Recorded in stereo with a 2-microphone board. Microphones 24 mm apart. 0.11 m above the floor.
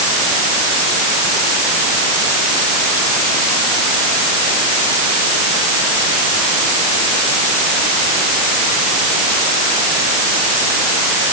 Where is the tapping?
I don't hear tapping.